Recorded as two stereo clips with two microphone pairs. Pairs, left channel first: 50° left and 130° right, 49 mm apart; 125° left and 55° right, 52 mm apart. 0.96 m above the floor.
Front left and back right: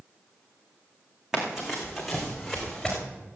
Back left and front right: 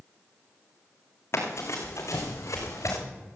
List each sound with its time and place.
1.3 s running footsteps: 155° left, 4 m; by 3.0 s 135° left, 4.5 m